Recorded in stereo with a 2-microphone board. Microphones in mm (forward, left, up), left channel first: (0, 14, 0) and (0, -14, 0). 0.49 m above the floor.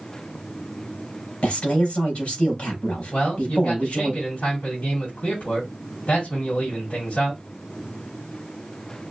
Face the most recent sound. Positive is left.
turn(degrees=70)  # may be behind; listen again after turning